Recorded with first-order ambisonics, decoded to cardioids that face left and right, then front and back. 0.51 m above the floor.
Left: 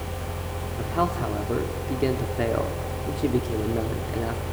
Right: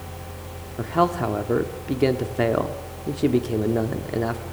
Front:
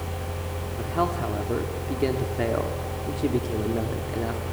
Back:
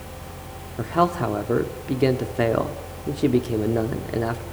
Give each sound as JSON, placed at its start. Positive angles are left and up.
{"t": 0.8, "sound": "a man speaking", "azimuth_deg": -135, "distance_m": 1.3}